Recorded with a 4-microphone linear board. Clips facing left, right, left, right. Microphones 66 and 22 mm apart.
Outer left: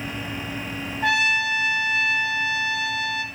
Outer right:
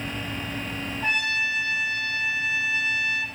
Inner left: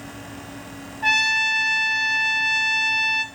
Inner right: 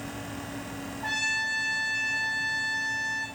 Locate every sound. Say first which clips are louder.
1.0 s a trumpet: outer left 5 dB, inner left 10 dB; 75° left (ahead or behind), 1.4 m